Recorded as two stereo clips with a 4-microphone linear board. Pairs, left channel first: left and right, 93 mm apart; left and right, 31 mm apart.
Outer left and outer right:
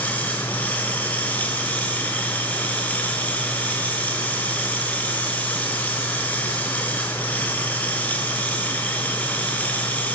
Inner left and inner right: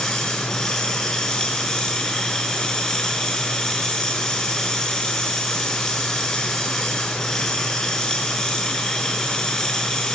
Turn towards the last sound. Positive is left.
turn(degrees=15)  # may be behind; listen again after turning